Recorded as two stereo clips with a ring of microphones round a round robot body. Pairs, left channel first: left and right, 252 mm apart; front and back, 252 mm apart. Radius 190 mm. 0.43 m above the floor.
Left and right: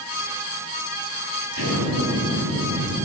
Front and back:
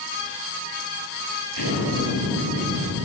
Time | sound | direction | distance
1.5 | an explosion | 140° right | 9 m